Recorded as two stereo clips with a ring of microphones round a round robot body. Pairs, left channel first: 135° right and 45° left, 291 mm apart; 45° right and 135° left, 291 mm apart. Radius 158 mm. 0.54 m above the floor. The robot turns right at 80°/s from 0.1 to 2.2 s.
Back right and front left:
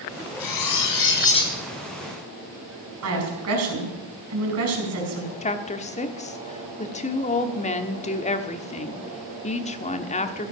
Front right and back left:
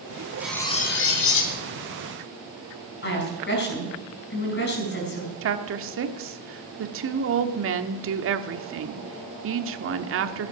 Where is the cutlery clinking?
140° right, 2.5 m; by 1.6 s 50° right, 2.5 m.